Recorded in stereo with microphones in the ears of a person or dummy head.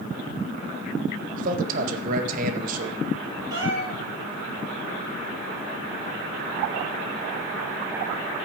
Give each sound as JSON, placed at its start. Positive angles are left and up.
{"t": 1.4, "sound": "a man speaking", "side_deg": -50, "distance_m": 1.7}
{"t": 3.5, "sound": "a cat meowing", "side_deg": -25, "distance_m": 6.0}